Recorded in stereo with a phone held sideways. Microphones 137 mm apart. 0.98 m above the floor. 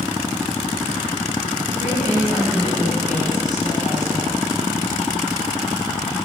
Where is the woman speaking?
70° left (ahead or behind), 5 m.